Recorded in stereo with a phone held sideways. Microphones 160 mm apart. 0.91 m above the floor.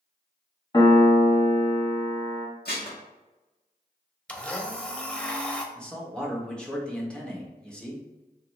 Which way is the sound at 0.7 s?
30° left (ahead or behind).